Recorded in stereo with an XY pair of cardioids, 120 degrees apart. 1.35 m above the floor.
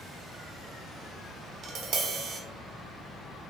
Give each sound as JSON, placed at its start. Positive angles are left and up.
{"t": 1.6, "sound": "tapping", "azimuth_deg": -60, "distance_m": 0.8}